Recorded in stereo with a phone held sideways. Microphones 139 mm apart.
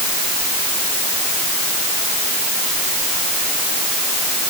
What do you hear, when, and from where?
Only background noise.